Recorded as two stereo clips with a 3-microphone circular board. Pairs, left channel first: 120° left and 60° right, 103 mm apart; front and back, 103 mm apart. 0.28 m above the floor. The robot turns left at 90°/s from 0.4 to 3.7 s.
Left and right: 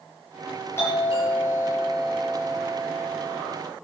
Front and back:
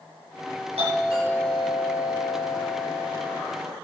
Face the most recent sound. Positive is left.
turn(degrees=-80)